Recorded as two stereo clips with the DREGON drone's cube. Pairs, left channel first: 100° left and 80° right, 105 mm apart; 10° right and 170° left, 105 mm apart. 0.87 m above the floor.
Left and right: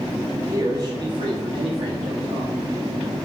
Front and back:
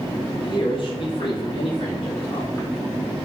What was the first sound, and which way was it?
A man speaking, 25° right.